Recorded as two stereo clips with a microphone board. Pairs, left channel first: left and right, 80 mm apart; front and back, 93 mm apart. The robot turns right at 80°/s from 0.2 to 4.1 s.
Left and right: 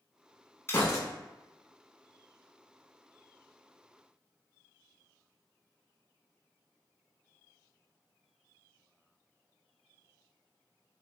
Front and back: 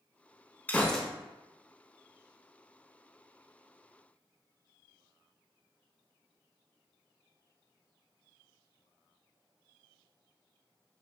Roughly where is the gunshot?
Ahead left.